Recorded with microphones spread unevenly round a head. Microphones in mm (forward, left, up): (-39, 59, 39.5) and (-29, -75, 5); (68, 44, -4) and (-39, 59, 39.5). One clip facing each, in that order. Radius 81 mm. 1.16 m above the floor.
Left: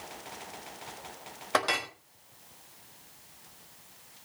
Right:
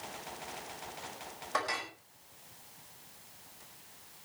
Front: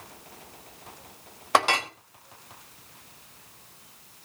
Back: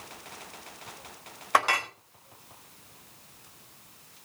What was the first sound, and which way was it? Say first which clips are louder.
A clink: left 6 dB, front 2 dB; 60° left.